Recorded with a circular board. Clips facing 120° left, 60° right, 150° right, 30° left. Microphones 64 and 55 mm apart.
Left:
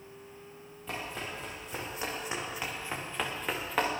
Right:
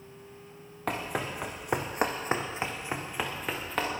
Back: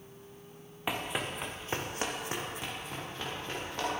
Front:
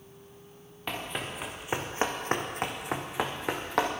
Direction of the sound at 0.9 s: 75° right.